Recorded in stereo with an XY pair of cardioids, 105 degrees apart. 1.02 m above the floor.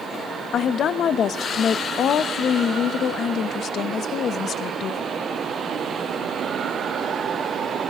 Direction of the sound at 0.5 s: 60° left.